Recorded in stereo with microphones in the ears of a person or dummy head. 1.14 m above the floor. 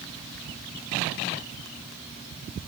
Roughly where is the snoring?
No snoring in this recording.